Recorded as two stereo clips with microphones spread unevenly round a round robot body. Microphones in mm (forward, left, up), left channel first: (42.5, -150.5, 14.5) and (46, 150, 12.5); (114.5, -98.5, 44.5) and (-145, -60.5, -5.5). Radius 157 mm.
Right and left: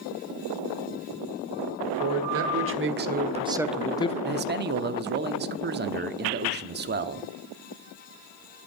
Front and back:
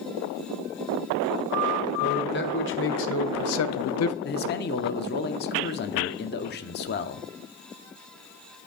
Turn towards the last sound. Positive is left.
turn(degrees=45)